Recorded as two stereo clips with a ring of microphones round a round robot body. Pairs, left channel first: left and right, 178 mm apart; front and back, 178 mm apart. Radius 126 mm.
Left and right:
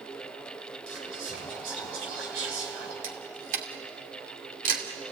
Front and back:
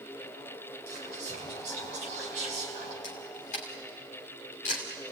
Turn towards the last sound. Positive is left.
turn(degrees=-55)